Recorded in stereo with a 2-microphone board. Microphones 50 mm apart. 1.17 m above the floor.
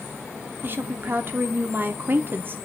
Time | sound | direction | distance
0.6 | a woman speaking | 45° right (ahead or behind) | 1.1 m